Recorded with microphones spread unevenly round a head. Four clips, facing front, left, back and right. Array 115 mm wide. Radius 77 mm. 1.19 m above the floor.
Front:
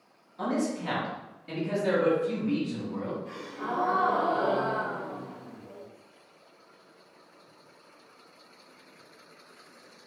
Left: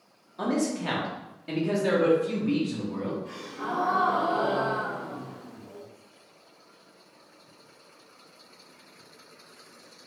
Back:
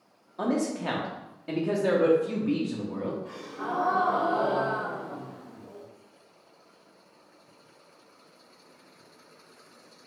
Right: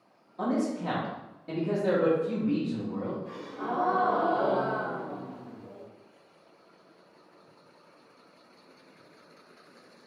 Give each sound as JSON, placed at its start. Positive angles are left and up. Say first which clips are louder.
{"t": 0.4, "sound": "a man speaking", "louder": "left 1 dB, back 2 dB", "azimuth_deg": -170, "distance_m": 1.2}
{"t": 3.2, "sound": "a gasp", "louder": "even, even", "azimuth_deg": -135, "distance_m": 1.5}